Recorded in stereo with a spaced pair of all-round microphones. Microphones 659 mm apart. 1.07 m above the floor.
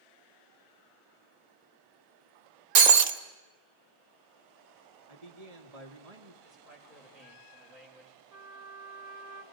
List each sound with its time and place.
2.8 s breaking glass: 80° right, 1.0 m
5.1 s a man speaking: 65° right (ahead or behind), 1.8 m
6.4 s a man speaking: 20° left (ahead or behind), 4 m
8.3 s a trumpet: 25° right (ahead or behind), 1.5 m